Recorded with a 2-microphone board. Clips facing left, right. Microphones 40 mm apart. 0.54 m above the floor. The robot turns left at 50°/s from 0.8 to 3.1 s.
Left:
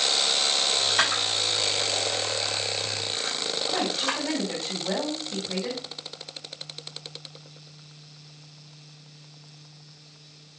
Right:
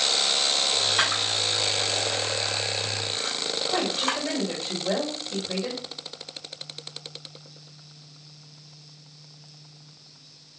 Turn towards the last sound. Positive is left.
turn(degrees=-40)  # may be behind; listen again after turning